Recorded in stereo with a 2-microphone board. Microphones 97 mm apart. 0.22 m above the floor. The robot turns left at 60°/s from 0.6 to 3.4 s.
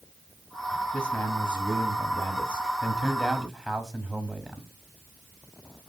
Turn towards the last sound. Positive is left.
turn(degrees=0)  # may be behind; listen again after turning